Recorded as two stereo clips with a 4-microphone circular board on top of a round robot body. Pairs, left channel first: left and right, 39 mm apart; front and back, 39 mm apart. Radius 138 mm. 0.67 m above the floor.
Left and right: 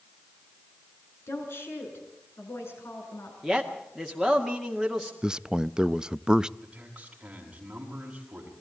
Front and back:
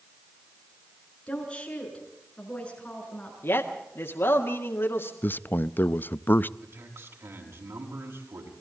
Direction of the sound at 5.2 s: 25° right.